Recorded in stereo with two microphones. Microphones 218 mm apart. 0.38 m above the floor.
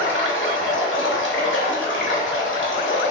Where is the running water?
60° left (ahead or behind), 0.8 m.